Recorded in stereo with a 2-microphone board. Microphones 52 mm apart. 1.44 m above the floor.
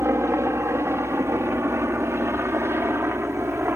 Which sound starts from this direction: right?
A helicopter, at 0.0 s.